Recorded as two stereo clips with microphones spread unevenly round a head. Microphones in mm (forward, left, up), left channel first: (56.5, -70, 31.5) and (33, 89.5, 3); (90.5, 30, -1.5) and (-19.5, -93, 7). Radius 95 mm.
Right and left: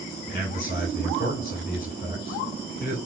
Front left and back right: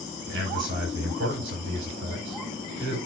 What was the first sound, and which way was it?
A man speaking, 130° right.